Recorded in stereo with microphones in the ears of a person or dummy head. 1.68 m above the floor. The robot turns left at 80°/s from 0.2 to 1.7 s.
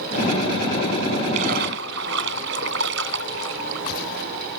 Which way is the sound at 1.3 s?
35° right (ahead or behind).